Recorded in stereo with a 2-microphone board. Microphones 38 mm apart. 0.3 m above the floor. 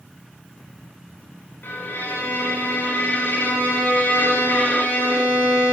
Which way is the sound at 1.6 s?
65° left (ahead or behind).